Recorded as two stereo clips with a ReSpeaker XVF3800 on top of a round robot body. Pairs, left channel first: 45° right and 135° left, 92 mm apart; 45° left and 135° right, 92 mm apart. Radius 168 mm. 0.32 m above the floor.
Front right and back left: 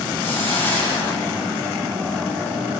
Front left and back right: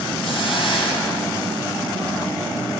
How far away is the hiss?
About 3.5 m.